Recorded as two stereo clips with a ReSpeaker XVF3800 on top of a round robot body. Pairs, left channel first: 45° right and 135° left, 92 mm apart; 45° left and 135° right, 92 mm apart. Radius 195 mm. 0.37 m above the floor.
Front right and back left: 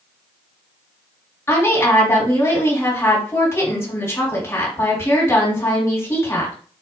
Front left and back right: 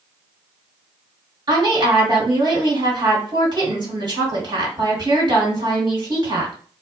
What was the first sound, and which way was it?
A woman speaking, 105° right.